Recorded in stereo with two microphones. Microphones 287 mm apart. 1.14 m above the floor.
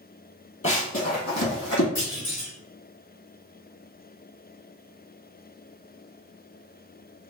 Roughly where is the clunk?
Left.